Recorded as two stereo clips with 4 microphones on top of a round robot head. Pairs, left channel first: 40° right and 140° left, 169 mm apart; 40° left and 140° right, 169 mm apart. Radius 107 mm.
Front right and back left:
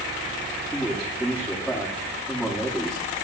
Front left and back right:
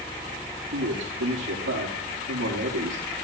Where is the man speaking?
130° right, 4.5 m.